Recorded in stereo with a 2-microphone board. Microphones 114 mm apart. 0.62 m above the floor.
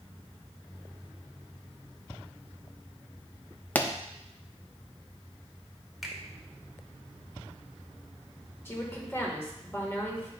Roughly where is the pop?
Centre.